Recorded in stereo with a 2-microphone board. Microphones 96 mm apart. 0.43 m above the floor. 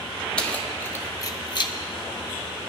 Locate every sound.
0.4 s keys jangling: 10° left (ahead or behind), 1.2 m; by 1.7 s 50° left (ahead or behind), 0.8 m